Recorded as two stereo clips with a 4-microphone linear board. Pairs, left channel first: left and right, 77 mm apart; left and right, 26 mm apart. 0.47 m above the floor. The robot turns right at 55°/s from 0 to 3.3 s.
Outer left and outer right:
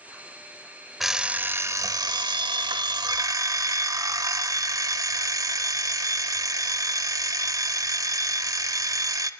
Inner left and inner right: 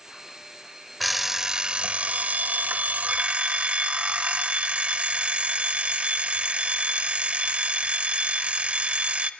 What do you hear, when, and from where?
1.0 s an alarm clock: straight behind, 0.7 m; by 9.3 s 50° right, 0.7 m